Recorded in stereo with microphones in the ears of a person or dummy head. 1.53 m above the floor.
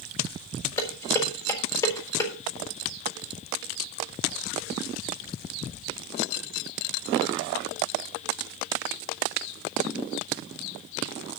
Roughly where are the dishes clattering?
Left.